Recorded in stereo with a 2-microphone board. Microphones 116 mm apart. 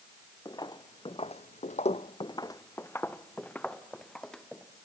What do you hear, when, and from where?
0.5 s footsteps: 35° left (ahead or behind), 1.2 m; by 4.7 s 5° left (ahead or behind), 2.5 m